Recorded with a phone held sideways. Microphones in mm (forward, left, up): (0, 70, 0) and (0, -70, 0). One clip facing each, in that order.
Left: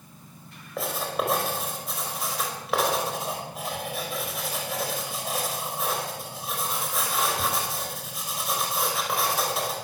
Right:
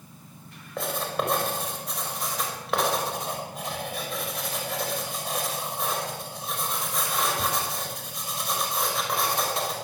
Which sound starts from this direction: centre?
Writing, at 0.8 s.